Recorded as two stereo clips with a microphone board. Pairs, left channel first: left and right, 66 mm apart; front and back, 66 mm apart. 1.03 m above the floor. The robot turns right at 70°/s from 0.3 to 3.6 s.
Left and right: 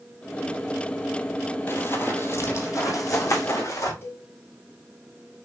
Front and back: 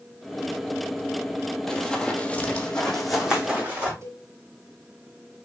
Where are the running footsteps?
75° left, 1.3 m; by 3.9 s 115° left, 3.5 m.